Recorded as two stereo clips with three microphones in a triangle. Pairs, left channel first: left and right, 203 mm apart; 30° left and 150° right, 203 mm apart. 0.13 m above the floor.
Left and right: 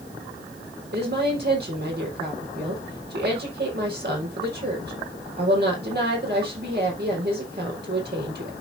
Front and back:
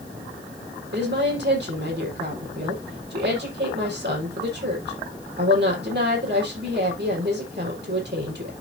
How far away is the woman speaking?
About 4.5 m.